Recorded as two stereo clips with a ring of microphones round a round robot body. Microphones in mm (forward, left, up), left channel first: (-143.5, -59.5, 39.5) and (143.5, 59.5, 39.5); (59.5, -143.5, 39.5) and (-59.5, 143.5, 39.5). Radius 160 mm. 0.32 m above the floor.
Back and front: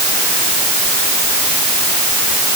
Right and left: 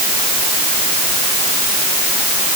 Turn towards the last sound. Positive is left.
No sound to turn to.